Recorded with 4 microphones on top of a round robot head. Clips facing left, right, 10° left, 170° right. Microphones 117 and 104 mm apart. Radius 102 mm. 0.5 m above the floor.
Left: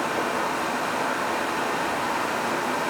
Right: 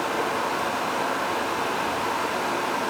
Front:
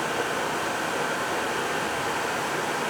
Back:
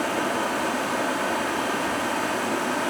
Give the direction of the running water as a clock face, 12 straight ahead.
7 o'clock.